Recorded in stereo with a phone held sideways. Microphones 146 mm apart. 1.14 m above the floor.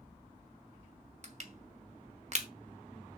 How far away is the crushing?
About 1.5 m.